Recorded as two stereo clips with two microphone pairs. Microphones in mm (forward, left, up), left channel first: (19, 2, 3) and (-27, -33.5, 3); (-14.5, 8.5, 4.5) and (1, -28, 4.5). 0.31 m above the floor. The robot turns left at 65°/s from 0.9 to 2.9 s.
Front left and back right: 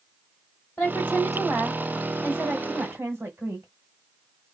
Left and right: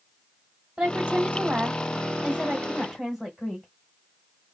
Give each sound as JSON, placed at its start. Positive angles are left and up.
{"t": 0.8, "sound": "a woman speaking", "azimuth_deg": -5, "distance_m": 1.1}